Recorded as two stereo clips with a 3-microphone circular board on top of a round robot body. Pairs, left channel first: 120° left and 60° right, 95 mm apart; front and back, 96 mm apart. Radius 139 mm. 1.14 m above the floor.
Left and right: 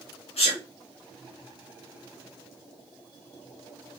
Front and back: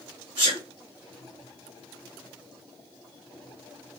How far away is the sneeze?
About 1.0 m.